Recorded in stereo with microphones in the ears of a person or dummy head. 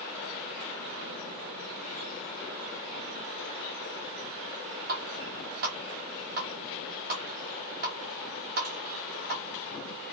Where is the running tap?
40° right (ahead or behind), 0.7 m.